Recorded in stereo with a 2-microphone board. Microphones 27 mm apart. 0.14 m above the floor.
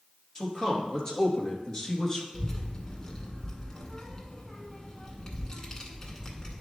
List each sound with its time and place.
0.3 s a man speaking: 20° left (ahead or behind), 2.5 m
2.3 s a child speaking: 25° left (ahead or behind), 0.9 m